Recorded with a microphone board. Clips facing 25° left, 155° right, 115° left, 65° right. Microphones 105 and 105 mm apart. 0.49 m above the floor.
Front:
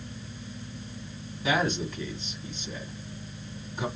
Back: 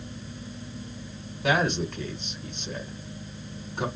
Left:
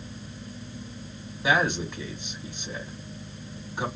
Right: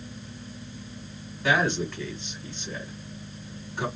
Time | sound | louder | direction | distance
1.4 | a man speaking | back 2 dB, even | 175° right | 1.7 m